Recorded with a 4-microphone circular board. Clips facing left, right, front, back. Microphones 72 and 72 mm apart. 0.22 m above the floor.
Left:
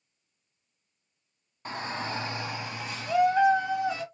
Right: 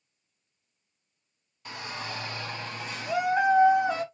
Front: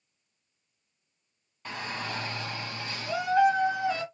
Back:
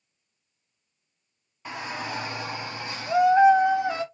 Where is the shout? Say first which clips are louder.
Left 4 dB, back 2 dB; 105° left, 1.2 m; by 4.0 s 125° right, 1.2 m.